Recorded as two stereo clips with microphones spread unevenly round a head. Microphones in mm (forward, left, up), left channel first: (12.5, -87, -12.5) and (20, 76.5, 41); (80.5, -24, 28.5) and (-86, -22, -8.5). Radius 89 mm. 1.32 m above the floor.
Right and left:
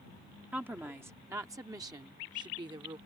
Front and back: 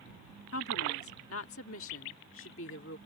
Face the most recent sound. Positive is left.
turn(degrees=25)